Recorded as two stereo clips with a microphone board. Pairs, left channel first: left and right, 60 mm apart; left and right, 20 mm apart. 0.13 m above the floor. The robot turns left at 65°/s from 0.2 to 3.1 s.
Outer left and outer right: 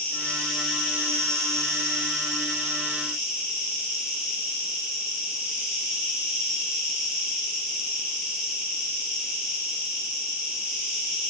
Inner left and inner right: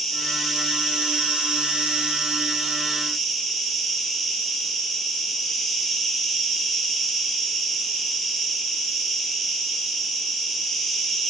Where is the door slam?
I don't hear a door slam.